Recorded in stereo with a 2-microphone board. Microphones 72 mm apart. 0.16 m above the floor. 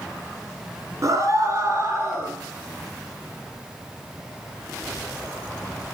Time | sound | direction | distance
1.0 | a scream | 50° right (ahead or behind) | 2 m